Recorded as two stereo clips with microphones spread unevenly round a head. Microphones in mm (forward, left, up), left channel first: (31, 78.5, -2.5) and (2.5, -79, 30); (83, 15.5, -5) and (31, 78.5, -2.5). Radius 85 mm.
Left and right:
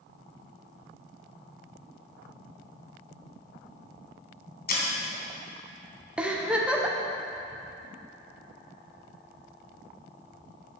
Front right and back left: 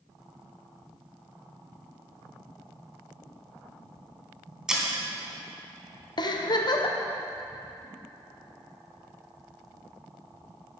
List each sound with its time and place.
4.7 s breaking glass: 50° left, 3 m
6.2 s a giggle: 15° right, 1.1 m